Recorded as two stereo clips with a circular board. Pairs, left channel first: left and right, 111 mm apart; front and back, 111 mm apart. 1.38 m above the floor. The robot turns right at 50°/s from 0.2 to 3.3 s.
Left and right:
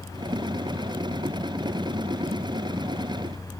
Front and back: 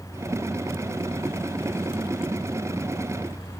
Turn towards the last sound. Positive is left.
No sound to turn to.